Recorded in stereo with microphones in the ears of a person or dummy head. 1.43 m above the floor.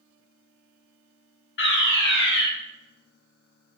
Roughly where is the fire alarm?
Left.